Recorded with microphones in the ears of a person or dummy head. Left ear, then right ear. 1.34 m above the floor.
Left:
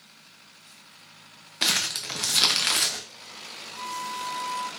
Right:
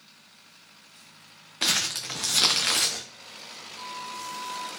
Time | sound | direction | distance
1.6 | crumpling | 5° left (ahead or behind) | 0.6 m
3.8 | a flute | 35° left (ahead or behind) | 1.3 m